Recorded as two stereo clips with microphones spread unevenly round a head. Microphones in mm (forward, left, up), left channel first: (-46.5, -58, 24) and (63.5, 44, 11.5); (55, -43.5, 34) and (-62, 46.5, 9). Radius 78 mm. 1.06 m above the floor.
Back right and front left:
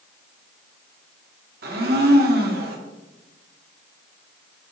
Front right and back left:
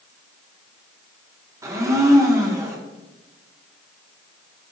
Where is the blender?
70° left, 1.5 m.